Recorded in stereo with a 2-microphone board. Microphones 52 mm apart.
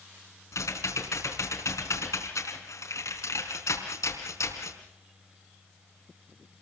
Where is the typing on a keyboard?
70° left (ahead or behind), 4 m.